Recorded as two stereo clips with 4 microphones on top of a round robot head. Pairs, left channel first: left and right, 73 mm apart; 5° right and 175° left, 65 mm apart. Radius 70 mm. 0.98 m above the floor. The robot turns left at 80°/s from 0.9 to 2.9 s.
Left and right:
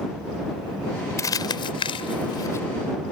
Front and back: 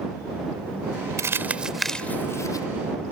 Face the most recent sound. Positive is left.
turn(degrees=0)